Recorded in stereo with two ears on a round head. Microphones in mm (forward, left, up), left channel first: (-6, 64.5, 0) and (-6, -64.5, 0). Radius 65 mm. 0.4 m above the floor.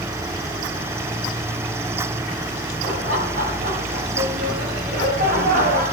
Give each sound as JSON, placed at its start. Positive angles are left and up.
{"t": 2.8, "sound": "laughter", "side_deg": -55, "distance_m": 7.0}